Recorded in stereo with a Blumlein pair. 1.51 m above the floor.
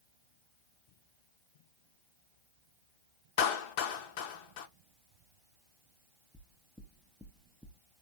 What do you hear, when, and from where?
3.4 s a clap: 45° left, 0.8 m
6.3 s knocking: straight ahead, 0.7 m